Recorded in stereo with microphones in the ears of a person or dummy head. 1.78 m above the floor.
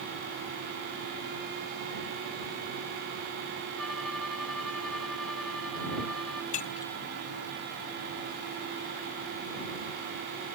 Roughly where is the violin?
Centre.